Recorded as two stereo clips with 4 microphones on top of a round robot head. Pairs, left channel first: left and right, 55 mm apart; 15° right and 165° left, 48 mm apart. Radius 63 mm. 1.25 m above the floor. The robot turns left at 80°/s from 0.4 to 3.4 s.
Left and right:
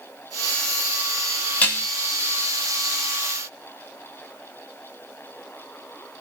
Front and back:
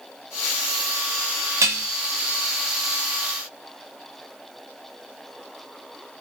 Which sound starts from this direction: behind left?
Dishes clattering, at 1.6 s.